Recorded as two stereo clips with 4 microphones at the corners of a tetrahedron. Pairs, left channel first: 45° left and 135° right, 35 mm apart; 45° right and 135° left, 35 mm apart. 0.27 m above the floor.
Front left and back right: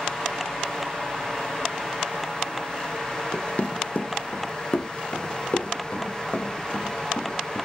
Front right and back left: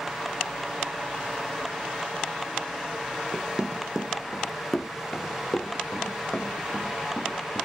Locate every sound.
3.3 s running footsteps: 80° left, 0.8 m; by 7.7 s 20° left, 3 m